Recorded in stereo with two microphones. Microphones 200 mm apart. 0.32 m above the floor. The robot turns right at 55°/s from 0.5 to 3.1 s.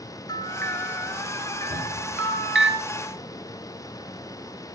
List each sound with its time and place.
0.3 s a bell: 20° left (ahead or behind), 1.0 m; by 2.7 s 80° right, 1.0 m
1.7 s a cupboard door: 35° right (ahead or behind), 10 m; by 2.2 s 65° right (ahead or behind), 10 m